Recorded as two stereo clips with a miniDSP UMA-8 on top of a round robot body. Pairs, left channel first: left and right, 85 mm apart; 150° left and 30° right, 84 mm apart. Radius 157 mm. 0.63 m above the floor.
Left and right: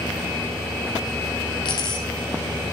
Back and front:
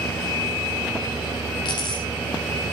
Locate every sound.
1.6 s a dropped coin: 120° left, 2 m